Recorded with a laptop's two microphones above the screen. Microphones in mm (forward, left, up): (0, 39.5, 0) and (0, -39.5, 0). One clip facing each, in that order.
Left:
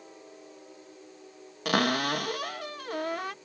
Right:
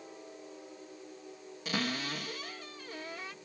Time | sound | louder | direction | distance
1.6 | a cupboard door | left 9 dB | 70° left (ahead or behind) | ?